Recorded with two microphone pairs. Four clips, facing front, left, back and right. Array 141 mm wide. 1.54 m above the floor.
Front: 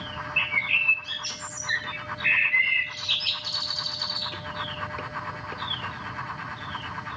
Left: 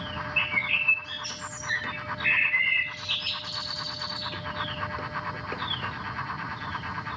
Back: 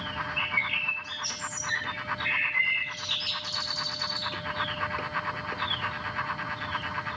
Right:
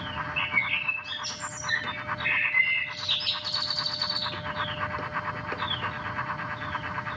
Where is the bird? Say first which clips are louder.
Even, front 1 dB; 25° left, 3.5 m.